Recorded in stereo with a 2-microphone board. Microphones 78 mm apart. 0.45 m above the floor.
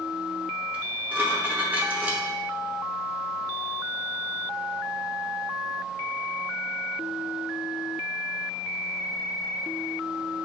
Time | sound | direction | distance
0.7 | dishes clattering | 20° right (ahead or behind) | 0.8 m